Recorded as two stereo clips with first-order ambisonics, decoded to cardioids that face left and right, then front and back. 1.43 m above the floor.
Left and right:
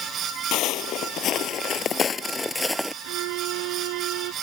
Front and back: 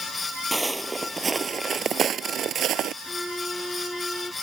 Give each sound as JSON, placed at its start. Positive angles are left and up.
{"t": 0.5, "sound": "footsteps", "azimuth_deg": 95}
{"t": 3.0, "sound": "a violin", "azimuth_deg": -90}